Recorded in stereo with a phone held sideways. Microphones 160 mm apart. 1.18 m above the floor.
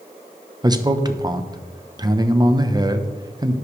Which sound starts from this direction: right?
A man speaking, at 0.6 s.